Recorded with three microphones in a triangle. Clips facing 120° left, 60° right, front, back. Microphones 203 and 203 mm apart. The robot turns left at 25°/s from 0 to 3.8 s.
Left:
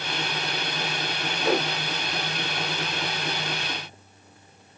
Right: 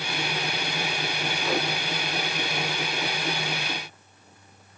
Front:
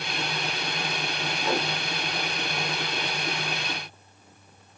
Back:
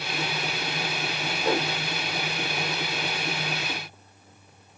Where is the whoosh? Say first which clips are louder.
Left 4 dB, back 3 dB; 135° left, 4 m; by 1.7 s 125° left, 4 m.